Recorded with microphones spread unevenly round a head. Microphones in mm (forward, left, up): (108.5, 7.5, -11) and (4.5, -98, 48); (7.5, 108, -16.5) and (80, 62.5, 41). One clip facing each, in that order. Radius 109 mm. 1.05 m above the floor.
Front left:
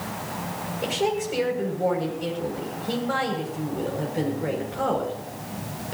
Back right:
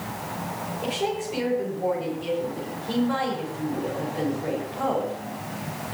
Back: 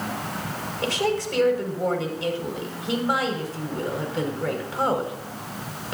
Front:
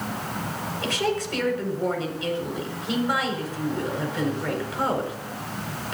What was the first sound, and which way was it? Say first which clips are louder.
A woman speaking: front left 3 dB, back 2 dB; 100° left.